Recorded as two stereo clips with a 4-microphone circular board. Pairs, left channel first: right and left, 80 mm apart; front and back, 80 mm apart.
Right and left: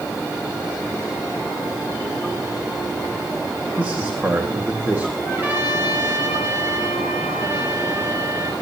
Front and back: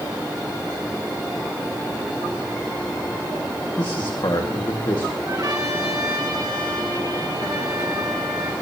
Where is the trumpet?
150° left, 5 m.